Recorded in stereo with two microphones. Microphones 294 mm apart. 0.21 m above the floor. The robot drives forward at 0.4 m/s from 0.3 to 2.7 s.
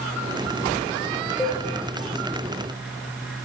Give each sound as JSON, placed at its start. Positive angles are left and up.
{"t": 1.4, "sound": "a cowbell", "side_deg": 10, "distance_m": 3.0}